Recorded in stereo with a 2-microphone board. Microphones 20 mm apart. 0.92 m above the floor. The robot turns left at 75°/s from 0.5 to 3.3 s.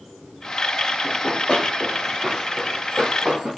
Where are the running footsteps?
70° left (ahead or behind), 2 m; by 3.5 s 50° right (ahead or behind), 2.5 m.